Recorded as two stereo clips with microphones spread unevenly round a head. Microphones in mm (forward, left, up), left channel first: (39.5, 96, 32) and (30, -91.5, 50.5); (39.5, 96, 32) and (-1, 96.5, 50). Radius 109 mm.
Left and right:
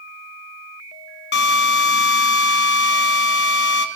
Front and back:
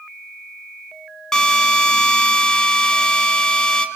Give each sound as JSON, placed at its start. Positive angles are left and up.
{"t": 1.3, "sound": "a drill", "azimuth_deg": 70, "distance_m": 3.0}